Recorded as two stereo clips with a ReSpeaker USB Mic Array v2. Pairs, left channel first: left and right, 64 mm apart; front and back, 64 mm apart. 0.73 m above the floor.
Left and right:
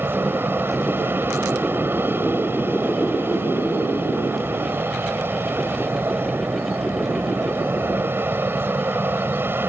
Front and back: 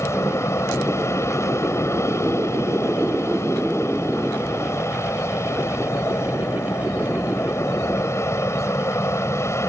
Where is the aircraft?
35° right.